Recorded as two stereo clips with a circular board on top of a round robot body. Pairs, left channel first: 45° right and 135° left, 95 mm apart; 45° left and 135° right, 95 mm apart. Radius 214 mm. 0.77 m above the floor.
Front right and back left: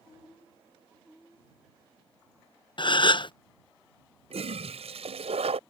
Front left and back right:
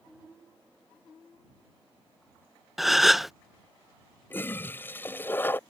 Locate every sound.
2.8 s a gasp: 45° right
4.3 s a toilet flushing: 115° left